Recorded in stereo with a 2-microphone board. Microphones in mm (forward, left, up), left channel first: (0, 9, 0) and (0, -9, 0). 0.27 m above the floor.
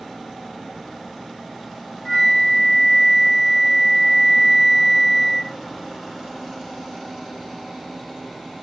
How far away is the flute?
About 2.5 m.